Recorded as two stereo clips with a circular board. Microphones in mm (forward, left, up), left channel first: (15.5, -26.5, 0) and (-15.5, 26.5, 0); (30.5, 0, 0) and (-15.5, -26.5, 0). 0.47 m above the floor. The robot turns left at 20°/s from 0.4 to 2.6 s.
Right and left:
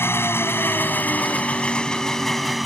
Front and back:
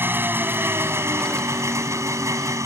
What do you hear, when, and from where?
0.0 s an engine running: 105° right; by 2.7 s 150° right